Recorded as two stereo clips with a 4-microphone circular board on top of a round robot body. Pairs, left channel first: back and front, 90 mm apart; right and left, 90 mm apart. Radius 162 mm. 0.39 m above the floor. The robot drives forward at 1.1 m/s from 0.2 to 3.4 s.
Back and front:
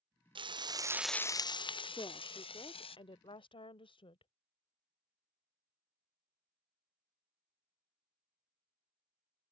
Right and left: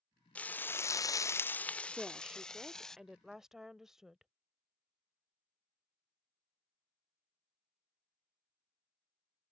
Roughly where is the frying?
Ahead.